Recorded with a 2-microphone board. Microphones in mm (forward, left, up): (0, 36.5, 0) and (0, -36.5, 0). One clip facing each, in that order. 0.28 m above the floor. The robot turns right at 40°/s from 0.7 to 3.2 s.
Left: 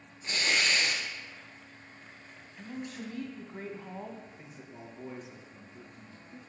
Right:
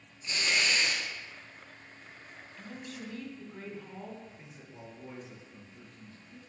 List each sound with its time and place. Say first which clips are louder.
0.2 s tearing paper: left 1 dB; 45° left (ahead or behind), 2.5 m; by 1.0 s 35° left (ahead or behind), 2.5 m
2.6 s a man speaking: left 4 dB; 15° left (ahead or behind), 2 m; by 4.2 s 30° left (ahead or behind), 2 m
4.3 s a man speaking: left 2 dB; 15° left (ahead or behind), 3.5 m